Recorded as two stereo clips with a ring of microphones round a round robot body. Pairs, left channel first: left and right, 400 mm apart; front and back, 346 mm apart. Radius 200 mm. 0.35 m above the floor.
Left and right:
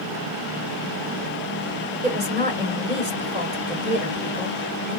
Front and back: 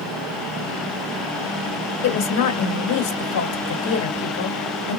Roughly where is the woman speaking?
Ahead right.